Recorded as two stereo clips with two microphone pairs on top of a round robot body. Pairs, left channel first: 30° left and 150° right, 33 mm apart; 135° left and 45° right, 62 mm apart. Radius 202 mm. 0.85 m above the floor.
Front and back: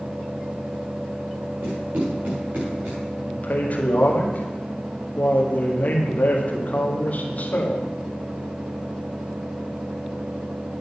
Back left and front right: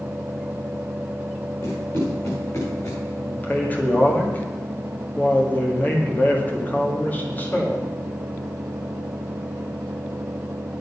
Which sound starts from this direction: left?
A man speaking, at 3.2 s.